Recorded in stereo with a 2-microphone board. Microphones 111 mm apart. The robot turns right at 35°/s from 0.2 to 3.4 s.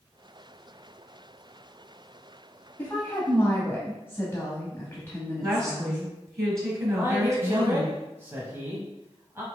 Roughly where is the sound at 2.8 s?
Centre.